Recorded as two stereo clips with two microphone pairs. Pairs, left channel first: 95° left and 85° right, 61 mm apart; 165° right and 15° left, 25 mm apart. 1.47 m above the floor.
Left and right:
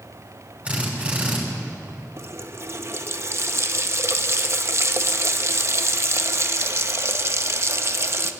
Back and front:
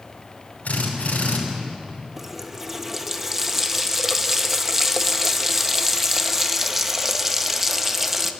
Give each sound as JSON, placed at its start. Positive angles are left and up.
{"t": 0.7, "sound": "a drill", "azimuth_deg": -155, "distance_m": 6.0}
{"t": 2.2, "sound": "a running tap", "azimuth_deg": -60, "distance_m": 0.9}